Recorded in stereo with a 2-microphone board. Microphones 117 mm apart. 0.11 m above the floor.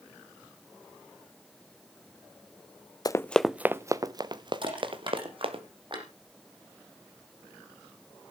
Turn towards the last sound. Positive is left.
turn(degrees=-45)  # may be behind; listen again after turning